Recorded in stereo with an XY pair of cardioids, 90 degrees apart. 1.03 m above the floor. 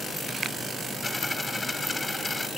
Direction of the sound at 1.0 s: 25° left.